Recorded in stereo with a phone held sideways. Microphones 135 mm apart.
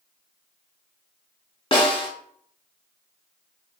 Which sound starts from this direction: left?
A snare drum, at 1.7 s.